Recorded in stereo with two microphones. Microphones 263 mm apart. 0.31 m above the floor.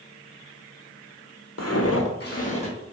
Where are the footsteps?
75° left (ahead or behind), 0.7 m; by 2.8 s 20° left (ahead or behind), 1.1 m.